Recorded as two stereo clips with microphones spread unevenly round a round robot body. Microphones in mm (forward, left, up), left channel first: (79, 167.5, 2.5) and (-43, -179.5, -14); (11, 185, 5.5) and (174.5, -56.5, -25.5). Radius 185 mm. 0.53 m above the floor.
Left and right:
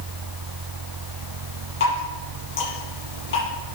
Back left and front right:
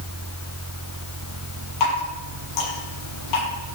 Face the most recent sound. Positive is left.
turn(degrees=130)